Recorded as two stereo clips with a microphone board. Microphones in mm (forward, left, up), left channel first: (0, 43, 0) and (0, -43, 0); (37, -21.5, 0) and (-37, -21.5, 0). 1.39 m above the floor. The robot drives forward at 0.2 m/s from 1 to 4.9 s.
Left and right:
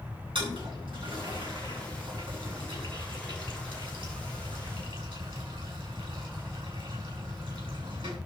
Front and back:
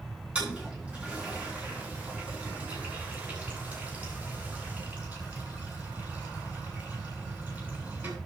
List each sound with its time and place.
0.3 s a toilet flushing: 105° right, 9.5 m; by 8.2 s 110° right, 9.5 m